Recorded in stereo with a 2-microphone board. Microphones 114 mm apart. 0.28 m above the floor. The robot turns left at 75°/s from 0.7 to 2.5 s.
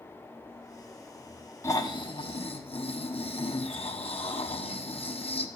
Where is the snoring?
150° left, 1.4 m; by 5.5 s 85° left, 1.4 m.